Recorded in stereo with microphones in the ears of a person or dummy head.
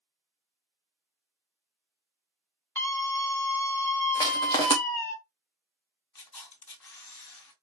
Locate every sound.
2.8 s a scream: 10° left (ahead or behind), 1.9 m
4.2 s crushing: 25° left (ahead or behind), 0.8 m
6.2 s a camera shutter: 15° left (ahead or behind), 2 m